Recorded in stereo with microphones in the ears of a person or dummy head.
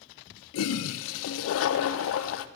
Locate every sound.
0.5 s a toilet flushing: 75° left (ahead or behind), 0.5 m